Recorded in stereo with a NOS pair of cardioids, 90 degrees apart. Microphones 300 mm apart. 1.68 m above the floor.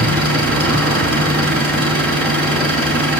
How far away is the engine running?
About 6.5 m.